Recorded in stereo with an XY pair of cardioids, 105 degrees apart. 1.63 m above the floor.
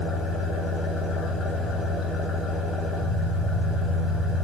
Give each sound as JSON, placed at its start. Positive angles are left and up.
{"t": 0.0, "sound": "an engine running", "azimuth_deg": 60, "distance_m": 7.0}